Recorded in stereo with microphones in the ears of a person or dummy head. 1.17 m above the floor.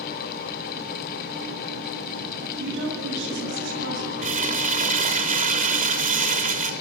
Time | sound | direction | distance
2.6 | a woman speaking | 60° right (ahead or behind) | 9.5 m
4.2 | crumpling | 40° right (ahead or behind) | 3 m